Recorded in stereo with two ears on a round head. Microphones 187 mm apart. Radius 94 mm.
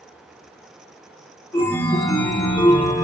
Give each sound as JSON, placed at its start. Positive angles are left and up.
{"t": 1.5, "sound": "a chime", "side_deg": 15, "distance_m": 1.3}